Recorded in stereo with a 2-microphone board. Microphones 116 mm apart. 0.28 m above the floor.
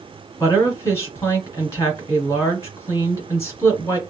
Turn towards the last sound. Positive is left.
turn(degrees=25)  # may be behind; listen again after turning